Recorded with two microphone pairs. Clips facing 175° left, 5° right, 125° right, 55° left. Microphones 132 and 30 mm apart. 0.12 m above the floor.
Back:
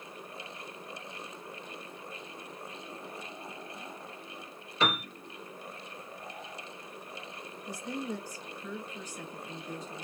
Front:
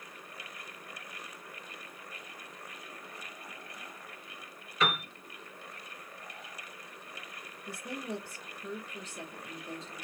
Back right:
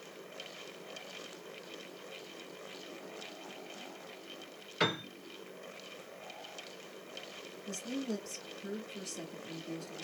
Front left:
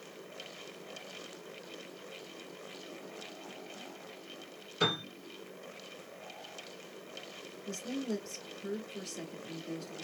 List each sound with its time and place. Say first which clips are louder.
4.8 s a piano: back 1 dB, front left 1 dB; 135° right, 2.5 m
7.7 s a woman speaking: back 2 dB, front left 1 dB; 15° right, 1.3 m